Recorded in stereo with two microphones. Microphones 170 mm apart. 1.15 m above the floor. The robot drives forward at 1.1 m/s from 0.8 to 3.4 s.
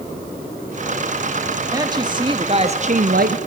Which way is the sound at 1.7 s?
20° right (ahead or behind).